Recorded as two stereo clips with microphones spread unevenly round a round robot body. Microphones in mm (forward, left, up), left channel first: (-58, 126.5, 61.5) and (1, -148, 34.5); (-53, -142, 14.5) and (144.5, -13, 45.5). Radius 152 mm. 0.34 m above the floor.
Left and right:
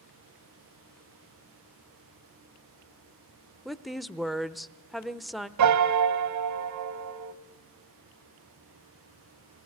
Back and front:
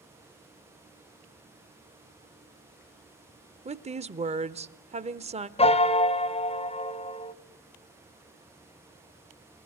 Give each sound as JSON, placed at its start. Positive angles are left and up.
{"t": 3.6, "sound": "a woman speaking", "azimuth_deg": 0, "distance_m": 0.8}
{"t": 5.6, "sound": "a piano", "azimuth_deg": -85, "distance_m": 1.3}